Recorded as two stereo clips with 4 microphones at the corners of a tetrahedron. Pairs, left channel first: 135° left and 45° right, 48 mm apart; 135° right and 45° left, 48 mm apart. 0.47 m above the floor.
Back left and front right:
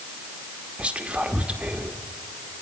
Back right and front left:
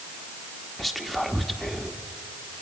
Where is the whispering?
50° right, 1.0 m.